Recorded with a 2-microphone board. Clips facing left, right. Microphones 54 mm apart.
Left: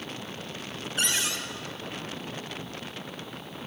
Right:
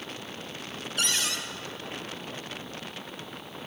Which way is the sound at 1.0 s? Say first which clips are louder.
Left 1 dB; 30° left (ahead or behind).